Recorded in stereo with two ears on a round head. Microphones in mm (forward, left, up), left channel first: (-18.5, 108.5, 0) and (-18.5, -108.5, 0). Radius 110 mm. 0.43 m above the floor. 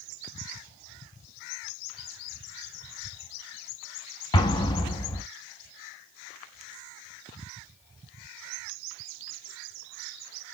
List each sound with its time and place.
4.3 s an explosion: 20° left (ahead or behind), 0.5 m